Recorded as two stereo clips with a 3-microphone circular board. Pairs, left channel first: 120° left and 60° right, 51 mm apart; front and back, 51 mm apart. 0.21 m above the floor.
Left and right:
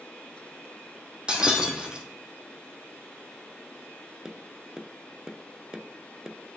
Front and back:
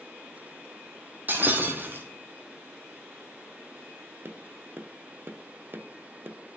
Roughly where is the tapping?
Behind right.